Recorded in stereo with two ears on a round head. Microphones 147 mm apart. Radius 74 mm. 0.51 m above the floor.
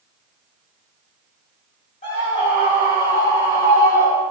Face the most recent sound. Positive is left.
turn(degrees=25)  # may be behind; listen again after turning